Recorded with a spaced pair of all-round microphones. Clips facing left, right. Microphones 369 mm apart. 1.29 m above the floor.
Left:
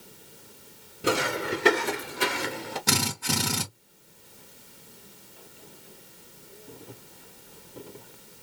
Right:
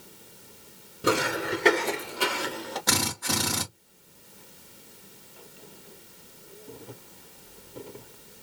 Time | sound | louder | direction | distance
1.0 | footsteps | right 1 dB | centre (ahead or behind) | 1.4 m
2.9 | a drill | left 1 dB | 40° left (ahead or behind) | 2 m